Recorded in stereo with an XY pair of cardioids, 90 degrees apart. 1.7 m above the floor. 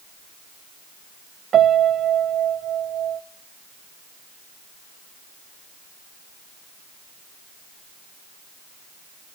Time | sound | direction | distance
1.5 | a piano | 60° right | 0.5 m